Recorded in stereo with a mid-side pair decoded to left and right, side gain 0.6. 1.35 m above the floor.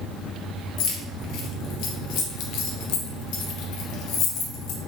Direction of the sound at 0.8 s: 70° left.